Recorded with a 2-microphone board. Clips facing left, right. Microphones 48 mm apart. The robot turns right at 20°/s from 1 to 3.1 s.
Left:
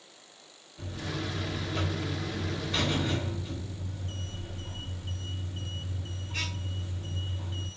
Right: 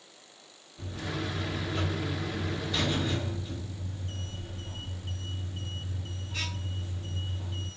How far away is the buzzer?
About 2 m.